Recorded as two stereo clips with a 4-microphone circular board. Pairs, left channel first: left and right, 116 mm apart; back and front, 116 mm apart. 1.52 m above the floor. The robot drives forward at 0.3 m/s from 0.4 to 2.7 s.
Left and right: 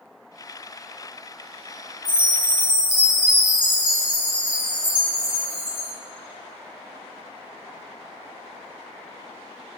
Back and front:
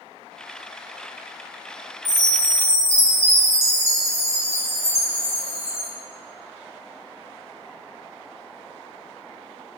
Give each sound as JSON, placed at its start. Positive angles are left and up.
{"t": 2.0, "sound": "a chime", "azimuth_deg": -10, "distance_m": 2.5}